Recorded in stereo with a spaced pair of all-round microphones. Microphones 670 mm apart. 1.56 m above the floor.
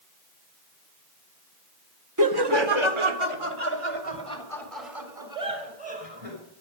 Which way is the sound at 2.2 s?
30° right (ahead or behind).